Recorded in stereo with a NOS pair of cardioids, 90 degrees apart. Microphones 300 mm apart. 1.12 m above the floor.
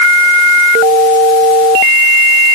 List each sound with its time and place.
Only background noise.